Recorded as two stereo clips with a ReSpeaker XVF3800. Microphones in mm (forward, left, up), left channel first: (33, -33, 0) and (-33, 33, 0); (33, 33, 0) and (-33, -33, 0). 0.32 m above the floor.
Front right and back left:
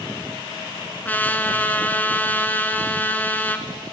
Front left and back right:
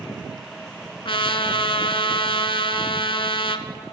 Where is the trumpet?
25° left, 0.7 m.